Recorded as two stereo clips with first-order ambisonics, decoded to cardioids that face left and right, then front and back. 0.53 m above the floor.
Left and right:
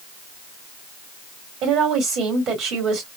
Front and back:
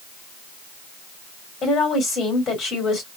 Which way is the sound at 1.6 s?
55° right.